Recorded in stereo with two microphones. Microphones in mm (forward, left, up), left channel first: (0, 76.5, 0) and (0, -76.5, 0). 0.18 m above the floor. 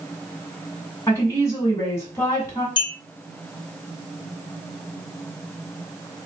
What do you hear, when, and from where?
1.1 s a woman speaking: 20° left (ahead or behind), 1.8 m
2.8 s a clink: 35° left (ahead or behind), 1.2 m